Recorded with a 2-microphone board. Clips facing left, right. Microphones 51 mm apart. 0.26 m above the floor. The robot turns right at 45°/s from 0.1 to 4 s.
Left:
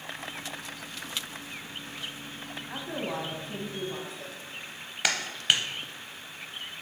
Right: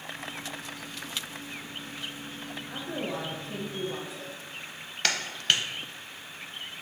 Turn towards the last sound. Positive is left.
turn(degrees=10)  # may be behind; listen again after turning